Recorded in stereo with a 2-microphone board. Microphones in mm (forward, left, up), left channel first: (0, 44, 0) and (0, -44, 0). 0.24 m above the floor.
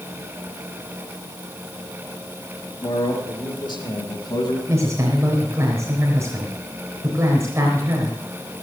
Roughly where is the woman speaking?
Right.